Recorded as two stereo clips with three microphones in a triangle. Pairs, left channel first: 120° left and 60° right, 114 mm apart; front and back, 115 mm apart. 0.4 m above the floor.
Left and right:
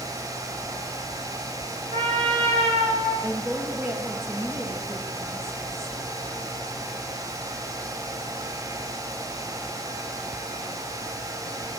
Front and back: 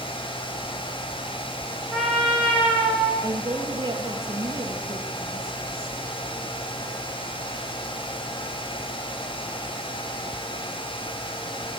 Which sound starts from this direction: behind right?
A woman speaking, at 3.2 s.